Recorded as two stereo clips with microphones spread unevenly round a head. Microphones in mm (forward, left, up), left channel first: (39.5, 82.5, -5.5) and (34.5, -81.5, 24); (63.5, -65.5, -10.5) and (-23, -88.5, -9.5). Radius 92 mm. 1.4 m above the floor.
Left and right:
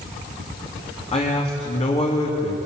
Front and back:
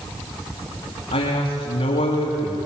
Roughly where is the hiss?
No hiss in this recording.